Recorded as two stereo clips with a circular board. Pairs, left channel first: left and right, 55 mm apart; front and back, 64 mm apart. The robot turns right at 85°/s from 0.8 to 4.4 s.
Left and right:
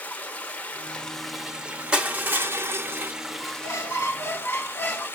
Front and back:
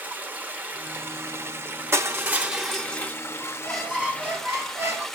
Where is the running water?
135° left, 0.8 m; by 5.2 s 80° left, 0.8 m.